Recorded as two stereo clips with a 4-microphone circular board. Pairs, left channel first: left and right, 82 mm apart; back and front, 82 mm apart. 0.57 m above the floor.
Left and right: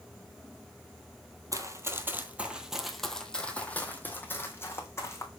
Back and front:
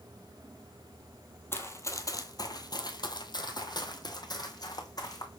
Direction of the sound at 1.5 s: 125° right.